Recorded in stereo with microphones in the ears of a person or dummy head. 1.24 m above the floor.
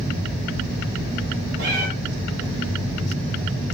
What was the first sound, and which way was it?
A cat meowing, 55° right (ahead or behind).